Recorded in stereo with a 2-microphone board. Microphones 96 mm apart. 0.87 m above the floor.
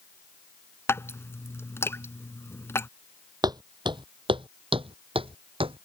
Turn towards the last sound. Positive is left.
turn(degrees=-70)  # may be behind; listen again after turning